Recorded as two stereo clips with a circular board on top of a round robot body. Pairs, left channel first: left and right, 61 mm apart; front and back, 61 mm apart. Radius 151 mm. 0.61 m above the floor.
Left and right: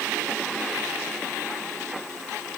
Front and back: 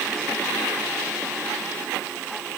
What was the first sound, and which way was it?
Only background noise.